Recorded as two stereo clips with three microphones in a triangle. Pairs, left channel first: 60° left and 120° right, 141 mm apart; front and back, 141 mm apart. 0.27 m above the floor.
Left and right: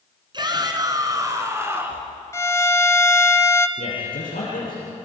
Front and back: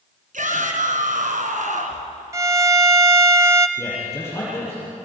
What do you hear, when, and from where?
0.3 s a shout: 175° right, 3 m; by 2.1 s 165° left, 3 m
2.3 s a violin: 120° left, 1.0 m
3.8 s a man speaking: 70° left, 6.5 m